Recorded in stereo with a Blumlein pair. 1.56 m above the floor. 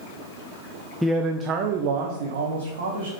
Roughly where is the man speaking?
Ahead.